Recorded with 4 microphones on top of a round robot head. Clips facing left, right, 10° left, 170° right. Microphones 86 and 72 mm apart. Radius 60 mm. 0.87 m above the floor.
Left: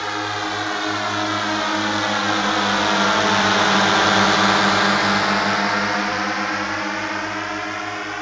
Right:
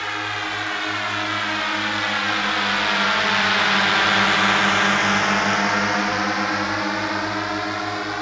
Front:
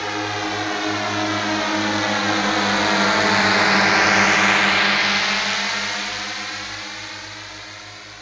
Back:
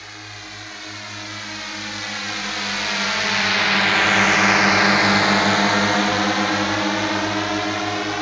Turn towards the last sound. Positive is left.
turn(degrees=-170)